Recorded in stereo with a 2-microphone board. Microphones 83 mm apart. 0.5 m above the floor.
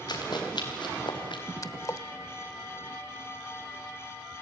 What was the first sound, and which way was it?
Running footsteps, 60° left (ahead or behind).